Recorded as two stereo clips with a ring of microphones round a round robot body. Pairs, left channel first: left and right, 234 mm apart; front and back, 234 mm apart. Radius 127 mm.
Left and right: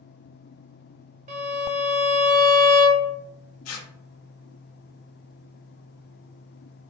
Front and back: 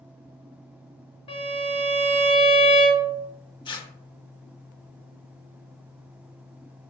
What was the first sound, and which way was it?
A violin, 50° right.